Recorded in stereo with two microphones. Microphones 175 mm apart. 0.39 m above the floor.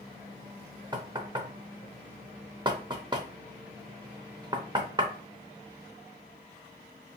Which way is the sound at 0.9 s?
25° right (ahead or behind).